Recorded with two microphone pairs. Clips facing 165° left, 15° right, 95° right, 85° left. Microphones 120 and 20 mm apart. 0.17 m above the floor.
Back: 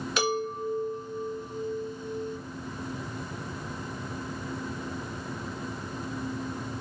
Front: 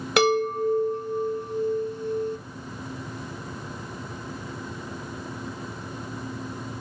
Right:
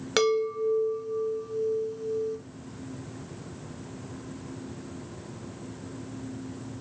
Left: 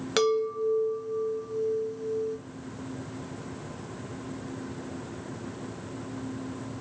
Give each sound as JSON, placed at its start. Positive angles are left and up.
{"t": 0.2, "sound": "a chime", "azimuth_deg": -15, "distance_m": 0.6}